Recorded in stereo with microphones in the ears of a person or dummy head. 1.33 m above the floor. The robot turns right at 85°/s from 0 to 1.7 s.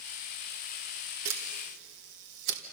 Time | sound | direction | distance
1.2 | a camera shutter | 70° right (ahead or behind) | 2 m